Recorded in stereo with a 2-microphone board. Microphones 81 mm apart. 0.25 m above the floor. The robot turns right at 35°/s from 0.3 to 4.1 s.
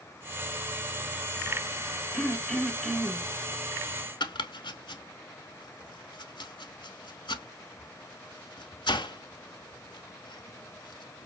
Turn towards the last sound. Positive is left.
turn(degrees=80)